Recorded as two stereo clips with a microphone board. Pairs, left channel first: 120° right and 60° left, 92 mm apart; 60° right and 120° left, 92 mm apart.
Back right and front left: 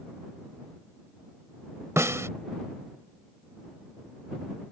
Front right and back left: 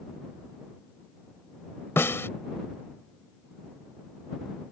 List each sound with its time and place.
2.0 s a snare drum: straight ahead